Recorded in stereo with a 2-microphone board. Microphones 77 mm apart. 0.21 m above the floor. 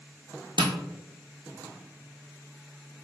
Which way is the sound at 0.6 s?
70° right (ahead or behind).